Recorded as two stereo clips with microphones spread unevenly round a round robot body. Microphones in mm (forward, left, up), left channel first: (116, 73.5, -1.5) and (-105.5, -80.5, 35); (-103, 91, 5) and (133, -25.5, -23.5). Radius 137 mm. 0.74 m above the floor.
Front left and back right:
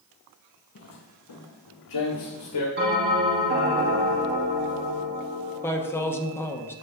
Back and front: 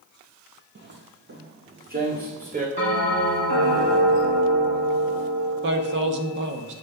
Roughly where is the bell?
Right.